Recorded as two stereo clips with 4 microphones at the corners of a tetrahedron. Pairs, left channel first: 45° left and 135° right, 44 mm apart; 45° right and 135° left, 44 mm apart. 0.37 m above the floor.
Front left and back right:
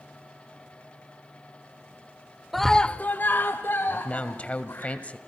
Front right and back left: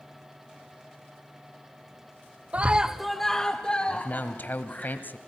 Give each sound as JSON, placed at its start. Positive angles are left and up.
{"t": 2.5, "sound": "a scream", "azimuth_deg": 140, "distance_m": 0.9}
{"t": 3.9, "sound": "a man speaking", "azimuth_deg": -10, "distance_m": 1.7}